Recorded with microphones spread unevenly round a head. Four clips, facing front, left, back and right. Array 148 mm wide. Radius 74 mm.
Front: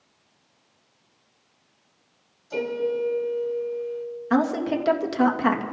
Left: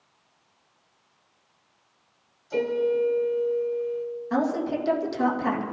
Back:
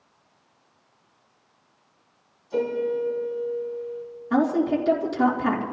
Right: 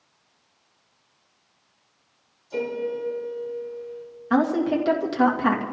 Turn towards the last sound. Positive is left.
turn(degrees=-30)